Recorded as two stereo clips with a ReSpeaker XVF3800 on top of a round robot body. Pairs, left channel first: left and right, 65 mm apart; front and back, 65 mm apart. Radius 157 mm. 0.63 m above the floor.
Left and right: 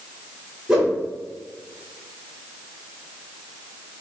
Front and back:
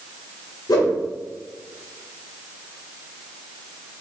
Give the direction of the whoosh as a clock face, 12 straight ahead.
12 o'clock.